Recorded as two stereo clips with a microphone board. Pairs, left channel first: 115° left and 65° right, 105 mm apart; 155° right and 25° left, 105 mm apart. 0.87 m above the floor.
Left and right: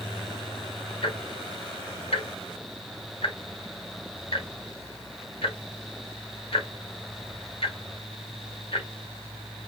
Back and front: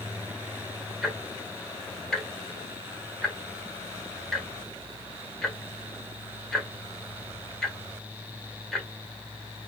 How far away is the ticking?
About 0.8 m.